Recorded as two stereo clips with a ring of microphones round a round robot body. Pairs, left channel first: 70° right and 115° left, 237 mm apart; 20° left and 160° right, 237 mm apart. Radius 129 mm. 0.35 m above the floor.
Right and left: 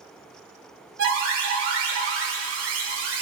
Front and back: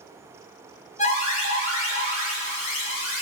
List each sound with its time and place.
1.0 s an alarm: 80° left, 5.5 m